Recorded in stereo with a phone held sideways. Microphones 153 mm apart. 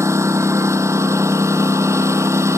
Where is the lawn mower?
20° right (ahead or behind).